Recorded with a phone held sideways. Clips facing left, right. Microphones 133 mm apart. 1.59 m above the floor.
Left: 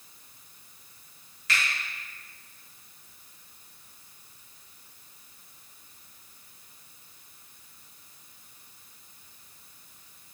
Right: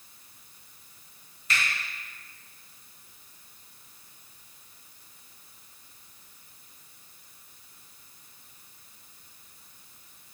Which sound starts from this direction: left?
A finger snap, at 1.5 s.